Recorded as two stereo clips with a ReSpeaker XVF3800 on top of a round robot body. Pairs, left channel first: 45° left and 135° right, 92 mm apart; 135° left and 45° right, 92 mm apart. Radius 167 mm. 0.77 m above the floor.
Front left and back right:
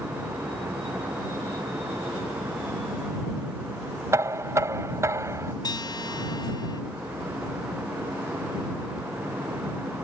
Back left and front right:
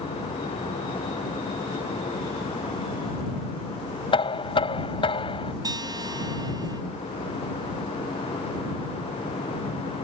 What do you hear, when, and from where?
4.1 s knocking: 165° left
5.6 s a guitar: straight ahead